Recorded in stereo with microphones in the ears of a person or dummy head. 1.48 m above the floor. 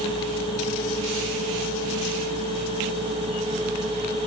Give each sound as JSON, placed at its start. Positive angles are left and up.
{"t": 0.0, "sound": "a machine running", "side_deg": -30}